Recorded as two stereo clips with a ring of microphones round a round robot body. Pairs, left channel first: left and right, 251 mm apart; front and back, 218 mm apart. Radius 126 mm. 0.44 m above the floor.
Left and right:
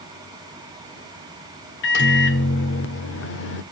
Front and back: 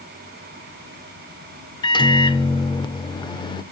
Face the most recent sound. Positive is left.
turn(degrees=65)